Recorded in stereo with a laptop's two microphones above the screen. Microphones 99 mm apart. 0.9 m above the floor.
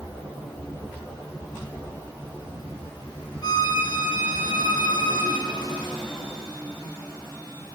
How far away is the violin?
About 0.9 m.